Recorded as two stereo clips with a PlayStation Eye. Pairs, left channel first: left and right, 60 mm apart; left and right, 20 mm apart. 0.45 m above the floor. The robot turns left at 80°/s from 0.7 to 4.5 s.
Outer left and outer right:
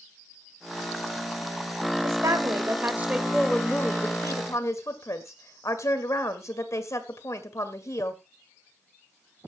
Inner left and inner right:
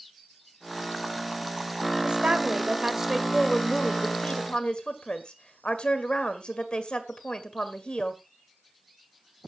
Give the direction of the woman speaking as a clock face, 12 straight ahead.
2 o'clock.